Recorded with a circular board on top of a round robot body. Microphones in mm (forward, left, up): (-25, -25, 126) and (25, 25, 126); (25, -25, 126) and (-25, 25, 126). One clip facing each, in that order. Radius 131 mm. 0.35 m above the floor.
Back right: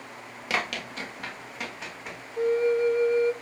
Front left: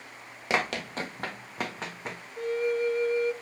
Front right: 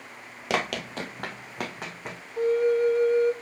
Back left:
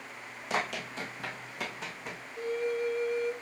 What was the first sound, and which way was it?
Running footsteps, 20° right.